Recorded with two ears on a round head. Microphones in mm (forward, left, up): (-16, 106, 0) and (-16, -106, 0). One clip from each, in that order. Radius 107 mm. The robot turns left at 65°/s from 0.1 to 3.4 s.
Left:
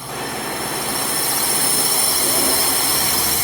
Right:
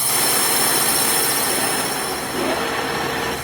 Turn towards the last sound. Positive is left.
turn(degrees=50)